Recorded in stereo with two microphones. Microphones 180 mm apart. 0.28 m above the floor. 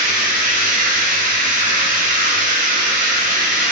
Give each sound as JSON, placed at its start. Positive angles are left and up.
{"t": 0.0, "sound": "running water", "side_deg": -45, "distance_m": 1.4}